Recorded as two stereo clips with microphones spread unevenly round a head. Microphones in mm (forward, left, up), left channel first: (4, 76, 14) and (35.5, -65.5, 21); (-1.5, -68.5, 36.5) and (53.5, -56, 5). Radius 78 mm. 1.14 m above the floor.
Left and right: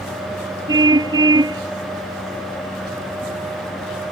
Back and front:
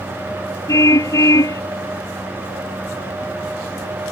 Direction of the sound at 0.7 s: 145° right.